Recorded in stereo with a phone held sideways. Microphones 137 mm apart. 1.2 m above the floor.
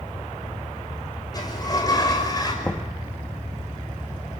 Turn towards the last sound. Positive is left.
turn(degrees=15)  # may be behind; listen again after turning